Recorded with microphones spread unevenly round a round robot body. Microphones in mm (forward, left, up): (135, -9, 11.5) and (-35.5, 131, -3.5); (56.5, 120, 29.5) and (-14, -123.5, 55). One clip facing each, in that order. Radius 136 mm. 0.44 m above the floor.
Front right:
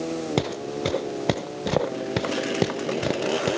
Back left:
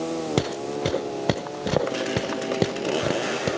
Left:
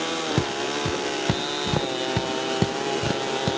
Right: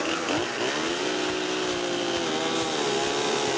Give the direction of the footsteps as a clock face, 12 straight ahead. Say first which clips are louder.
Back left 1 dB, left 2 dB; 10 o'clock.